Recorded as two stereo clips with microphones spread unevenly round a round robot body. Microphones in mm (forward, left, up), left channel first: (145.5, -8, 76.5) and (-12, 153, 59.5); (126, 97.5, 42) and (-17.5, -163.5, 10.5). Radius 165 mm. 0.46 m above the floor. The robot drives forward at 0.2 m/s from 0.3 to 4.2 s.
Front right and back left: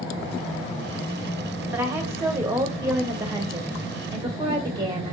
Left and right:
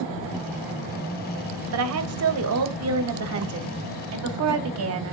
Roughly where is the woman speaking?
Behind right.